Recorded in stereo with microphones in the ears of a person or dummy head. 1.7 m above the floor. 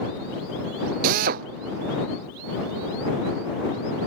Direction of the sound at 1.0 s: 45° right (ahead or behind).